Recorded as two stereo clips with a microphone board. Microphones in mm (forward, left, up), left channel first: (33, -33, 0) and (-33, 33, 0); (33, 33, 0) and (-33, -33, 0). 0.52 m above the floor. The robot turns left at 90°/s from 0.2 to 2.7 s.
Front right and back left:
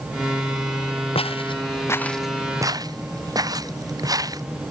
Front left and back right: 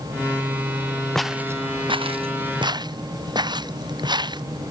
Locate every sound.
1.1 s footsteps: 40° right; by 4.4 s 175° right